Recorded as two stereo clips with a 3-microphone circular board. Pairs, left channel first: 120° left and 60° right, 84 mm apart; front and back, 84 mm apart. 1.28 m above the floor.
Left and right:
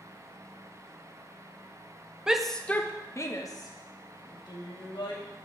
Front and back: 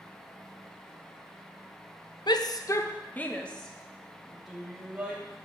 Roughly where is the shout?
Ahead.